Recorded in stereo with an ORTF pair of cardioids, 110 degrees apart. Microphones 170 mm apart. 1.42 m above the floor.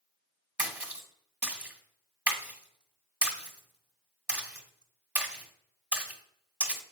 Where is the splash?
10° right, 1.6 m.